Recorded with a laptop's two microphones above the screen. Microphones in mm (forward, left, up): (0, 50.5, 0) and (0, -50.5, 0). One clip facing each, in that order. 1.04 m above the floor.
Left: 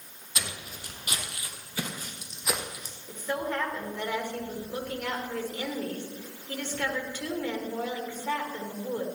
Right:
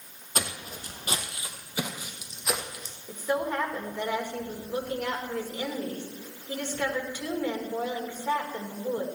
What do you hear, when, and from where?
0.3 s footsteps: 45° right (ahead or behind), 2 m; by 3.0 s 10° left (ahead or behind), 2 m
3.1 s a woman speaking: 10° right (ahead or behind), 3 m